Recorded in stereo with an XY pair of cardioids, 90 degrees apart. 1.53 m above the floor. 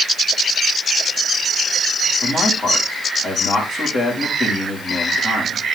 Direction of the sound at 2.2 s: 55° left.